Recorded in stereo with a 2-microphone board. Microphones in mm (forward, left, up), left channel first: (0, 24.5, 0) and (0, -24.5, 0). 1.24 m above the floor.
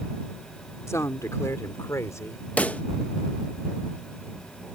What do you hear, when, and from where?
0.9 s a woman speaking: 85° left; by 2.5 s 90° left
2.6 s a pop: 30° left (ahead or behind)